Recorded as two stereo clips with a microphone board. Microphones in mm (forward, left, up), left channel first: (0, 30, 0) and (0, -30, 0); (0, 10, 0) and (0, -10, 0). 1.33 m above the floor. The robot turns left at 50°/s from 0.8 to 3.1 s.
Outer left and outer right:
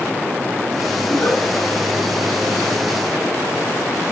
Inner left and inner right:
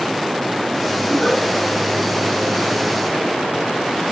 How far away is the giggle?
About 6 m.